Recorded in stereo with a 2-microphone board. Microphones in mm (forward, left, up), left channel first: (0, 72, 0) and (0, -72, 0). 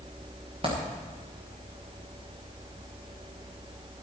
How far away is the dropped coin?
About 4 m.